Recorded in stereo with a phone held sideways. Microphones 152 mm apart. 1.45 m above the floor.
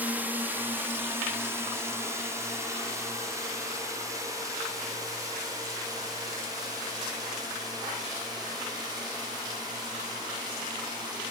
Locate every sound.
0.0 s a drone: 10° right (ahead or behind); by 11.3 s 25° right (ahead or behind)